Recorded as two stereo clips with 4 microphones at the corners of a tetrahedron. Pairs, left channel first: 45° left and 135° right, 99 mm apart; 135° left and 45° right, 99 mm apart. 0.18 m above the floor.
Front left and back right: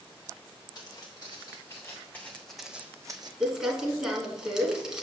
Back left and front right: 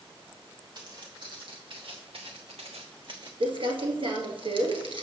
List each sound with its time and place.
0.8 s footsteps: 5° right, 2 m; by 3.3 s 90° right, 0.8 m
3.4 s crumpling: 50° right, 1.2 m